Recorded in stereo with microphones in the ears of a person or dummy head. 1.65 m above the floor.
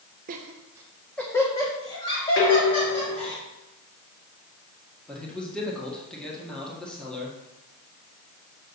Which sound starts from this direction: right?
Laughter, at 0.3 s.